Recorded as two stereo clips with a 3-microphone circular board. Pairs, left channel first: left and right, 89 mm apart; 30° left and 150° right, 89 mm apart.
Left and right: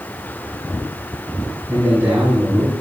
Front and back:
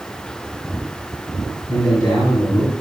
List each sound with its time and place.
1.7 s a man speaking: 25° right, 7.5 m